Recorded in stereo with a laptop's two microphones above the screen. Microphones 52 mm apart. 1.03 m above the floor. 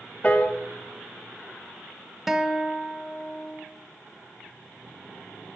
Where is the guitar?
5° right (ahead or behind), 0.8 m.